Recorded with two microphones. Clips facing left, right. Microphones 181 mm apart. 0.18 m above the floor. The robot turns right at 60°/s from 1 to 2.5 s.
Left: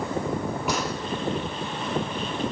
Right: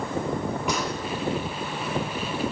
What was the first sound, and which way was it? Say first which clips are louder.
A gunshot: left 1 dB; centre (ahead or behind).